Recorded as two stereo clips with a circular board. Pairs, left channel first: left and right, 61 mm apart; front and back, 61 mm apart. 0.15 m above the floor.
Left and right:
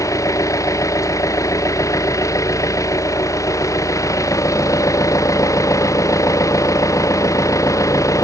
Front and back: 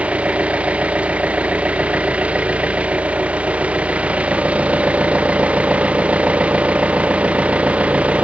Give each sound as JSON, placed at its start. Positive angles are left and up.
{"t": 0.0, "sound": "an engine running", "azimuth_deg": 115}